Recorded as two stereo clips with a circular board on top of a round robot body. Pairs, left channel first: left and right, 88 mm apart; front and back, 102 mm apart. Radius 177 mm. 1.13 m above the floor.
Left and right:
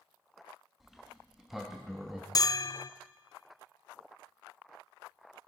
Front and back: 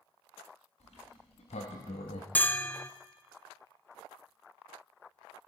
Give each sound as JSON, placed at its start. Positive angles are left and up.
{"t": 0.8, "sound": "a sliding door", "azimuth_deg": 0, "distance_m": 0.7}
{"t": 2.4, "sound": "a bell", "azimuth_deg": 70, "distance_m": 0.7}